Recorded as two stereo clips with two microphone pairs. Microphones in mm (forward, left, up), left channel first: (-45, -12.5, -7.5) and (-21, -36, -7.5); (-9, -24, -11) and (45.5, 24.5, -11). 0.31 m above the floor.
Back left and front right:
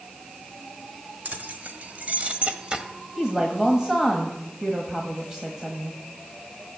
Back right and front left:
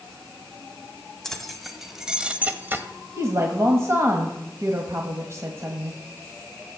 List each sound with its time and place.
1.2 s keys jangling: 55° right, 1.5 m; by 2.8 s 10° left, 1.1 m
3.2 s a woman speaking: 20° left, 1.4 m